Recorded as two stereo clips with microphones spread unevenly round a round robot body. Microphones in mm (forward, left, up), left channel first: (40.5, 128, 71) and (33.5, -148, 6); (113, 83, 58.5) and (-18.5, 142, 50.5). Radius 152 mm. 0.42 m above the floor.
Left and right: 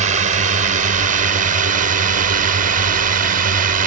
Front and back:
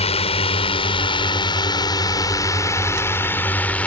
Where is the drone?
55° right; by 3.9 s 105° right.